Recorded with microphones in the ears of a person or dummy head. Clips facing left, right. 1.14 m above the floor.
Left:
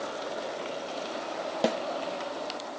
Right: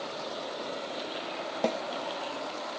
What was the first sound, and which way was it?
A snare drum, 10° left (ahead or behind).